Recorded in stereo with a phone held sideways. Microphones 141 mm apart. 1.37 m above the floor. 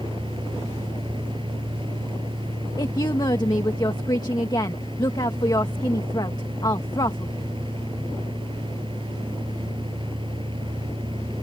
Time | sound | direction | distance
0.0 | a fan | 35° right (ahead or behind) | ?
2.8 | a woman speaking | 30° left (ahead or behind) | ?